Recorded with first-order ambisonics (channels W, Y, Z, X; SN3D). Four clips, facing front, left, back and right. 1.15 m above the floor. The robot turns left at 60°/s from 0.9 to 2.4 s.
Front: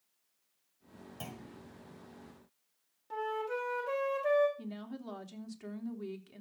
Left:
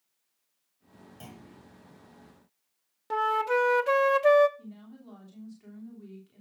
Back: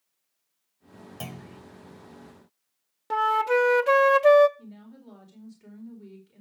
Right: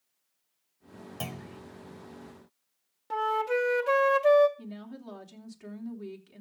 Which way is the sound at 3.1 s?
165° left.